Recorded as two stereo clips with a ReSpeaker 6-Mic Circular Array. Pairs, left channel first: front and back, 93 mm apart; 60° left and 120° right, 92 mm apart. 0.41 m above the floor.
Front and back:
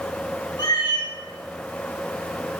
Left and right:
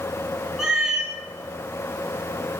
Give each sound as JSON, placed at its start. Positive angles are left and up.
{"t": 0.6, "sound": "a cat meowing", "azimuth_deg": -35, "distance_m": 1.6}